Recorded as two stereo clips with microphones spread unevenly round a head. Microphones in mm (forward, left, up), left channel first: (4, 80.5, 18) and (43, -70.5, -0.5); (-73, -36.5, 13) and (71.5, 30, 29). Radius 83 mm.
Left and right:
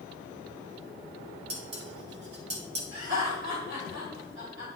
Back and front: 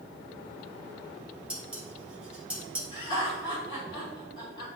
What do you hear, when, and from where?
1.5 s dishes clattering: 55° right, 1.5 m
2.9 s laughter: 90° right, 3 m